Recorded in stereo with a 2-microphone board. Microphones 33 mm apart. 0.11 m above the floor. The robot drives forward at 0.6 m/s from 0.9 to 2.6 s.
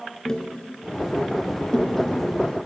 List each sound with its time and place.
0.2 s tapping: 20° left (ahead or behind), 1.1 m; by 2.7 s 15° left (ahead or behind), 1.7 m